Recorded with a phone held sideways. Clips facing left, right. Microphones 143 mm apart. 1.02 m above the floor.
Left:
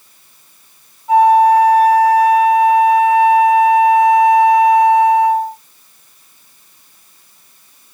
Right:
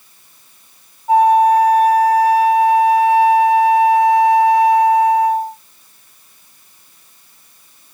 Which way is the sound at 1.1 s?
30° right (ahead or behind).